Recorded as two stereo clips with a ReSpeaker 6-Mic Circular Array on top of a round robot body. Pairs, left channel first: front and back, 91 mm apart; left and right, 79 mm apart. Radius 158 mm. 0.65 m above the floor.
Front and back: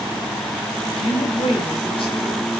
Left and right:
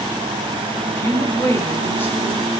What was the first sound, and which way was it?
A woman speaking, 25° left.